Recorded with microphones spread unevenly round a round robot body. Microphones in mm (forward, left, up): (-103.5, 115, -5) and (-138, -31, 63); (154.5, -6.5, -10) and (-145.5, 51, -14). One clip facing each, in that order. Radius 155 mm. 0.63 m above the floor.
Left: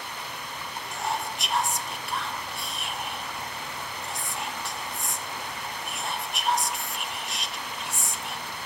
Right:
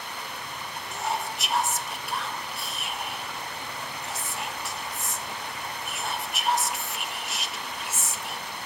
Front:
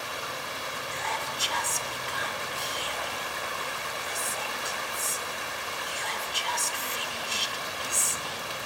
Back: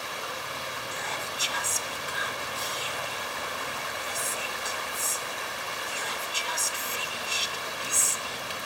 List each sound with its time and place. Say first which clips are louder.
0.9 s whispering: right 1 dB, front 1 dB; 95° left, 0.5 m